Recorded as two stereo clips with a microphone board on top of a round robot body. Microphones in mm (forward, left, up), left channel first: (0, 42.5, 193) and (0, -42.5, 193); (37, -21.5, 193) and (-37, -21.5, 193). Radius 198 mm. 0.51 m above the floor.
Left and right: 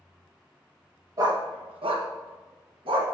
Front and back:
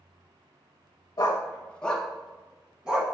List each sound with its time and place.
1.2 s a dog barking: 40° right, 0.5 m; by 3.0 s 105° right, 1.3 m